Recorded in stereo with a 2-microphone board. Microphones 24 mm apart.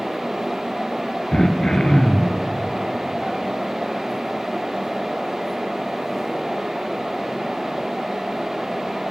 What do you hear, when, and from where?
1.3 s throat clearing: 30° left (ahead or behind), 2.5 m